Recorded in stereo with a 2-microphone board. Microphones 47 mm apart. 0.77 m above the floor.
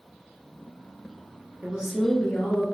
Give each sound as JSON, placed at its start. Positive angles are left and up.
{"t": 1.6, "sound": "a woman speaking", "side_deg": -30, "distance_m": 0.6}